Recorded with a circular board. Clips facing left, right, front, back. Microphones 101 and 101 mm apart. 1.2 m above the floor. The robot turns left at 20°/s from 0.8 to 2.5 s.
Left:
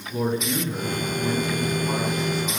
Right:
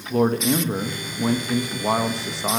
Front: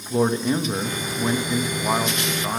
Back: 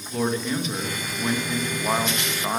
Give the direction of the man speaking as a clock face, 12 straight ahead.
2 o'clock.